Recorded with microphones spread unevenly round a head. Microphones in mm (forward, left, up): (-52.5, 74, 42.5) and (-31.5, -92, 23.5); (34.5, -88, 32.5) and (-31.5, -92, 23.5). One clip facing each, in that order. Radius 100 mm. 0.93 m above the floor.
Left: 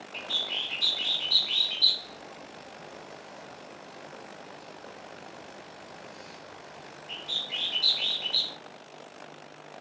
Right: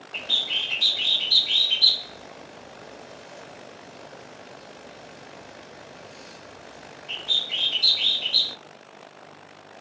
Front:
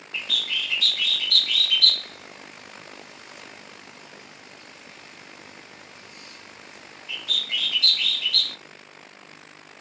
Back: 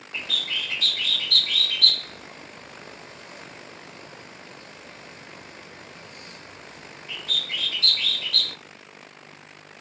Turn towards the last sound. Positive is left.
turn(degrees=-135)